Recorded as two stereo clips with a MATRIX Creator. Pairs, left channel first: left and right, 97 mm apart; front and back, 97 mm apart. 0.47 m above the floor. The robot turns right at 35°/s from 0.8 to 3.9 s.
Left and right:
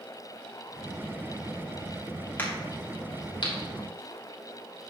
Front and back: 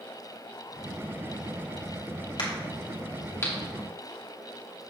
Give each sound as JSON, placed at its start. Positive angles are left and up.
{"t": 2.4, "sound": "a crack", "azimuth_deg": 20, "distance_m": 3.5}